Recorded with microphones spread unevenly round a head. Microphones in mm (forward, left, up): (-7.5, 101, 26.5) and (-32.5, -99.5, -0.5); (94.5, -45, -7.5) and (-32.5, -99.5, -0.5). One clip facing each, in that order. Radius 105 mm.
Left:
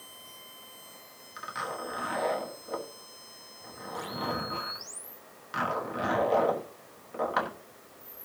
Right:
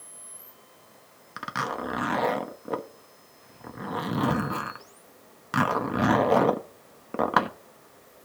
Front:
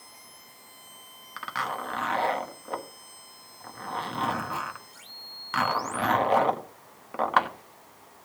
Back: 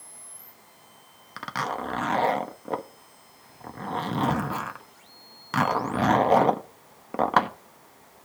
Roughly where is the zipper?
Right.